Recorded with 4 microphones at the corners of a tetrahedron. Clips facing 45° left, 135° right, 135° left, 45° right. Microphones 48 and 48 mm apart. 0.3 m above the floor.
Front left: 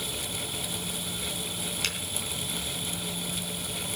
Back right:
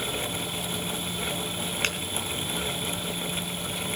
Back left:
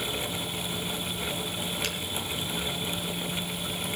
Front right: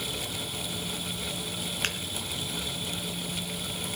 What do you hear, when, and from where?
1.8 s a finger snap: 85° right, 3.5 m